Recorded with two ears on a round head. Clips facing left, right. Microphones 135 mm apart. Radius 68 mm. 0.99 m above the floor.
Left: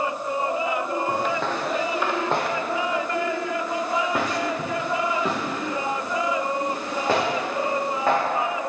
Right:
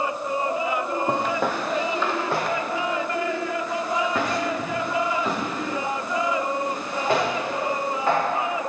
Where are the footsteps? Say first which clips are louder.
Right 1 dB; 20° right (ahead or behind), 1.2 m; by 8.2 s 65° left (ahead or behind), 5.5 m.